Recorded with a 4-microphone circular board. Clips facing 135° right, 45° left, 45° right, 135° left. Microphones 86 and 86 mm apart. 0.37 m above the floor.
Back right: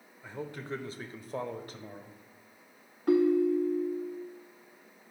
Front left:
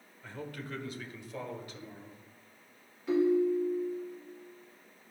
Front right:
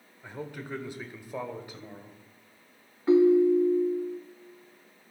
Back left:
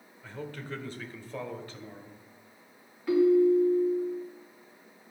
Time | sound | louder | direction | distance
0.2 | a man speaking | back right 3 dB, front right 1 dB | 85° right | 0.8 m
3.1 | a ringtone | back right 2 dB, front right 2 dB | 105° right | 1.1 m